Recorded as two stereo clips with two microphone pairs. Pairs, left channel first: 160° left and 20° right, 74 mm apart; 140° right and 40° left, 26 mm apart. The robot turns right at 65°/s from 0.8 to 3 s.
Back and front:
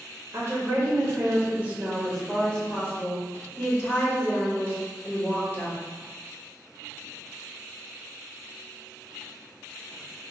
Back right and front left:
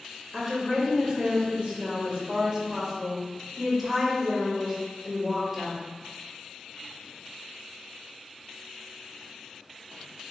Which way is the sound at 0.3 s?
25° right.